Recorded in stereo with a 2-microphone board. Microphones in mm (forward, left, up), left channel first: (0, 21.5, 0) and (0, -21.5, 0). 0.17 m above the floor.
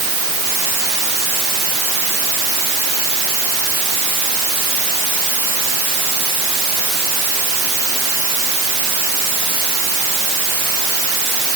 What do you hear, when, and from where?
Only background noise.